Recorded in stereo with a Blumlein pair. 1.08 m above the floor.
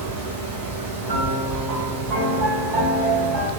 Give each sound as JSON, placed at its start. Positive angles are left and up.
{"t": 0.0, "sound": "a fan", "azimuth_deg": -45, "distance_m": 0.9}
{"t": 1.1, "sound": "a piano", "azimuth_deg": -35, "distance_m": 1.8}